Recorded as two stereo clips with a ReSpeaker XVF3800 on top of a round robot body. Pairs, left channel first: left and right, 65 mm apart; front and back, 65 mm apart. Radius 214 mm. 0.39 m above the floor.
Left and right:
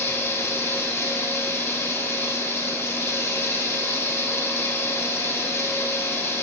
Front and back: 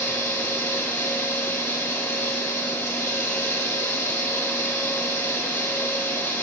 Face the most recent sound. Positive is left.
turn(degrees=40)